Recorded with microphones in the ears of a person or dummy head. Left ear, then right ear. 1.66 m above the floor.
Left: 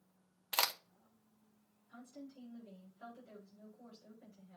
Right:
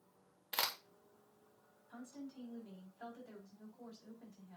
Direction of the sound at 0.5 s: 25° left (ahead or behind).